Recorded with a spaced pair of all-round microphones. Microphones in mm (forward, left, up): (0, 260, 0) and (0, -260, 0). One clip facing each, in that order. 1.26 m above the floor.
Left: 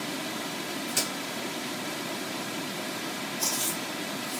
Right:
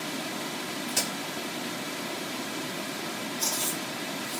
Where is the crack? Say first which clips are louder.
Even; 25° right (ahead or behind), 3.5 m.